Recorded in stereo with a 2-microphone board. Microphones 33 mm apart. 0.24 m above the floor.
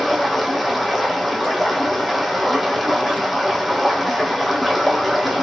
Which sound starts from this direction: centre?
Running water, at 0.0 s.